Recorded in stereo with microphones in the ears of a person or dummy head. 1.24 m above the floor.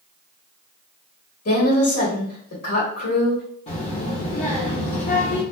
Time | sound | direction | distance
1.4 | a woman speaking | 45° left (ahead or behind) | 1.5 m
3.7 | a child speaking | 30° left (ahead or behind) | 0.9 m